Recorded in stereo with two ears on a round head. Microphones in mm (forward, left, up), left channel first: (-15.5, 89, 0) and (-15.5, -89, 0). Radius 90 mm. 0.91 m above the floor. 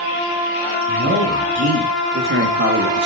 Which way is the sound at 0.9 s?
40° right (ahead or behind).